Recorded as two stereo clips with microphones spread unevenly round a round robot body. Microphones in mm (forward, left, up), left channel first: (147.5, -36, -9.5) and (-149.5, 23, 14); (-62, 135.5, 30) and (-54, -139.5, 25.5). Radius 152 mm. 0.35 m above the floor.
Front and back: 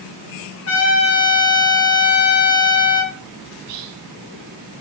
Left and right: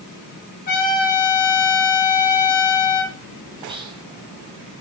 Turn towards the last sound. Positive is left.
turn(degrees=-160)